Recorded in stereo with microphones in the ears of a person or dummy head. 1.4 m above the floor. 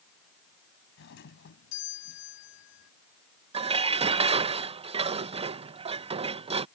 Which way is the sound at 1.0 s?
60° left (ahead or behind).